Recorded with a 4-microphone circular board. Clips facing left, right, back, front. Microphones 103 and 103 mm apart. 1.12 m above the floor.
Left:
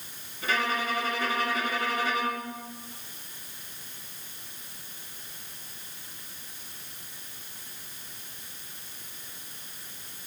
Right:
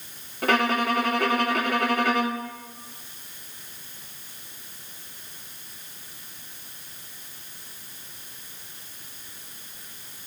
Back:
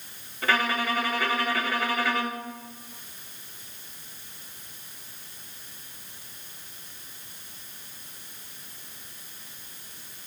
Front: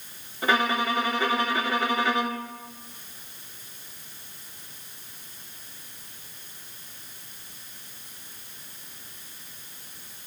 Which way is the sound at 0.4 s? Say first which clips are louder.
Right 6 dB, front 2 dB; 70° right.